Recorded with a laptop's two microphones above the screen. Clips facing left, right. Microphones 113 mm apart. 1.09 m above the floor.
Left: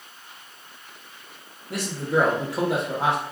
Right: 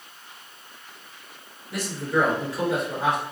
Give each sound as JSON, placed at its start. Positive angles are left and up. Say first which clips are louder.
{"t": 1.7, "sound": "a man speaking", "louder": "left 1 dB", "side_deg": 70, "distance_m": 1.4}